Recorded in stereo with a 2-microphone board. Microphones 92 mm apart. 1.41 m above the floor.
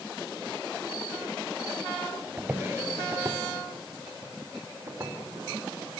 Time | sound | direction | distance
2.4 | footsteps | 20° right (ahead or behind) | 1.4 m